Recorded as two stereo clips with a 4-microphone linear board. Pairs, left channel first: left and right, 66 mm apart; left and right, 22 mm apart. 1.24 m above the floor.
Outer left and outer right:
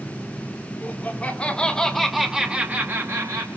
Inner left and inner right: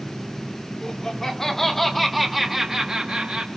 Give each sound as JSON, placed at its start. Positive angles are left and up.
{"t": 0.8, "sound": "laughter", "side_deg": 25, "distance_m": 2.5}